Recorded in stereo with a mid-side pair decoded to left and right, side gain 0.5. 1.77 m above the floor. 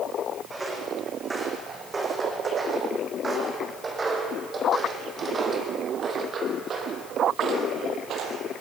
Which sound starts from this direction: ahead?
Footsteps, at 0.5 s.